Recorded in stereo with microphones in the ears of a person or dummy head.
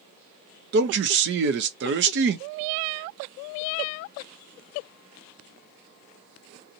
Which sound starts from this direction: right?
A man speaking, at 0.7 s.